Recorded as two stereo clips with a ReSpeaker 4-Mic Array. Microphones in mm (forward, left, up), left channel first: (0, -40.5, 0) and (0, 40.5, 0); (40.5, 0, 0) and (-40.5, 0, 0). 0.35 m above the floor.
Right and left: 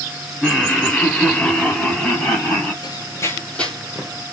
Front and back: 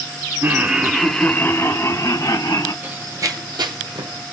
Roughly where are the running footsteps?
Right.